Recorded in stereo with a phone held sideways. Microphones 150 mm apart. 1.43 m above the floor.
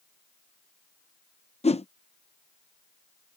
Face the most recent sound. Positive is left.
turn(degrees=45)  # may be behind; listen again after turning